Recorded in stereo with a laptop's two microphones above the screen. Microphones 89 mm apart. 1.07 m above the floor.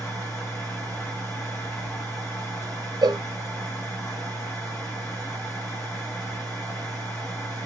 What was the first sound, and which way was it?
A machine running, 30° left (ahead or behind).